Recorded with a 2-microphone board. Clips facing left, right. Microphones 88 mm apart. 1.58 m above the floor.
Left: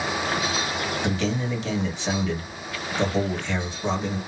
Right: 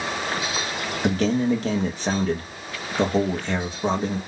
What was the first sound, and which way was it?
A man speaking, 45° right (ahead or behind).